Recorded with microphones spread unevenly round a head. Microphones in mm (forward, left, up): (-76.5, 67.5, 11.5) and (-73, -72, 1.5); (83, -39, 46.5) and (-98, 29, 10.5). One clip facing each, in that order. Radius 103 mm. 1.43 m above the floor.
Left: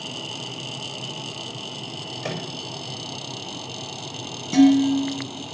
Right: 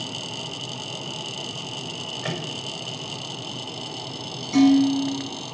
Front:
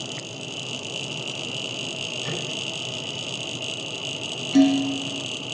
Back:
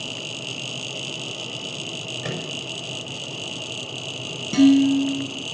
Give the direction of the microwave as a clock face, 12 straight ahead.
7 o'clock.